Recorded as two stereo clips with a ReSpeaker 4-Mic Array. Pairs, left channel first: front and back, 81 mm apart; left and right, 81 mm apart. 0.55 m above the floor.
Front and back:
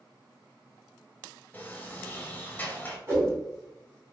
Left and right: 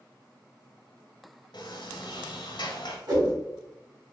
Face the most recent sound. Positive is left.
turn(degrees=-125)